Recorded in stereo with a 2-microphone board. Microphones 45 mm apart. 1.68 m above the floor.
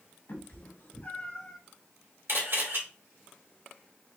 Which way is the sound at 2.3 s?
55° right (ahead or behind).